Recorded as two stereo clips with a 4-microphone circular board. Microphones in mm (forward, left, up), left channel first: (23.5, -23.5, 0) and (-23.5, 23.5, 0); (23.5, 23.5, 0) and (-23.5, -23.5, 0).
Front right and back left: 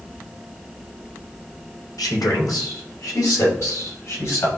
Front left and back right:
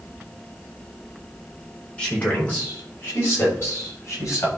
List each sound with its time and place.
2.0 s a man speaking: 25° right, 4 m; by 4.5 s 5° right, 7 m